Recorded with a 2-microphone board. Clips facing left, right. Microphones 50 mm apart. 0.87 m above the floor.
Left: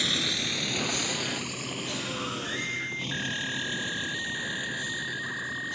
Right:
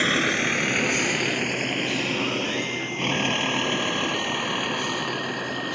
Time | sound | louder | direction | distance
0.0 | a vehicle | right 8 dB | 40° right (ahead or behind) | ?